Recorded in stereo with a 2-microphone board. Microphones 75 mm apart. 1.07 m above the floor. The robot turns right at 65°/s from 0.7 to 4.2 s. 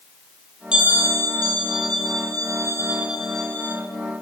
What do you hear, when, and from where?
0.7 s a bell: 170° right, 8 m; by 3.8 s 30° left, 8 m